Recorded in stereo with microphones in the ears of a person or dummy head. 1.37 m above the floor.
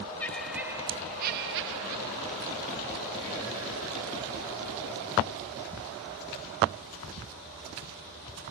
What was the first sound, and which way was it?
Laughter, 10° left (ahead or behind).